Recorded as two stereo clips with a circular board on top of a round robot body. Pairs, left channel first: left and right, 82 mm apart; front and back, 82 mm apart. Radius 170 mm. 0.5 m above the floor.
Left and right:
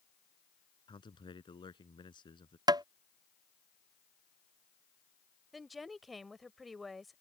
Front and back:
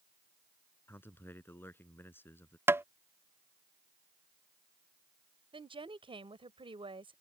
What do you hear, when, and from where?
0.9 s a man speaking: 65° left
2.7 s tapping: 120° right
5.5 s a woman speaking: straight behind